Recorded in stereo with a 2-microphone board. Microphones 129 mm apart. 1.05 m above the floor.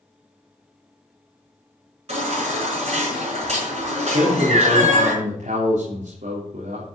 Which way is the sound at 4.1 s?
75° right (ahead or behind).